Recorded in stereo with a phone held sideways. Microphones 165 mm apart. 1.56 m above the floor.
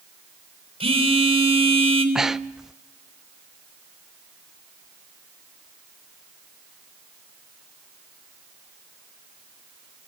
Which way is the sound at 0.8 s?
35° right (ahead or behind).